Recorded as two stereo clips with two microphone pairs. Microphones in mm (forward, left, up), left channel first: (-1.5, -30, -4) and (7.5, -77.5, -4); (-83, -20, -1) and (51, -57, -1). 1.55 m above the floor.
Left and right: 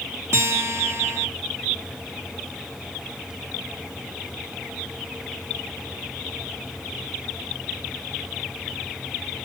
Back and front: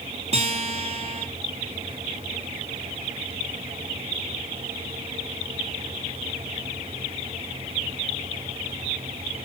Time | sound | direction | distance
0.3 | a guitar | 55° right | 0.9 m